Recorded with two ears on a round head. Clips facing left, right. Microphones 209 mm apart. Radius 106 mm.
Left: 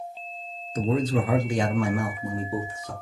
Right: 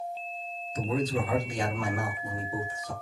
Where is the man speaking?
40° left (ahead or behind), 0.7 m; by 2.9 s 55° left (ahead or behind), 1.3 m.